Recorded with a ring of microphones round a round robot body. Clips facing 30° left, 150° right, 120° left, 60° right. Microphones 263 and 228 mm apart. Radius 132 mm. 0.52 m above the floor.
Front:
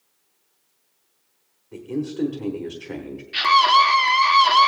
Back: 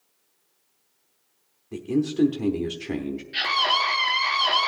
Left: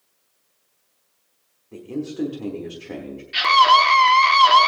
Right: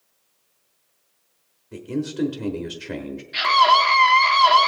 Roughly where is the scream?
Left.